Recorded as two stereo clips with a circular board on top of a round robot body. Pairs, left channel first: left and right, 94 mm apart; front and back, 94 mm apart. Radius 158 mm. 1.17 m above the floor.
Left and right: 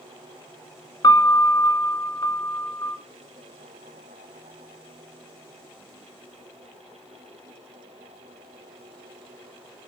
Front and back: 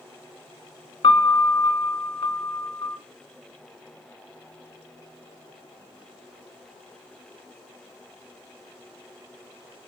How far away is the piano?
About 0.6 m.